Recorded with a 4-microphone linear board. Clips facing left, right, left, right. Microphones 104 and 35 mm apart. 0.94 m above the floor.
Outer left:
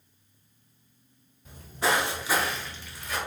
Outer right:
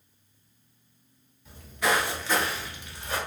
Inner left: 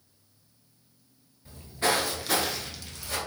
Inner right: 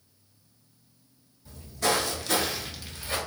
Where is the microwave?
I don't hear a microwave.